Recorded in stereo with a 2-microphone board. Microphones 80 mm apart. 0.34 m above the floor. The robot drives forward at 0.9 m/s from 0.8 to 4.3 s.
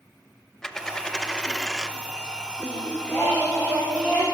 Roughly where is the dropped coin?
Centre.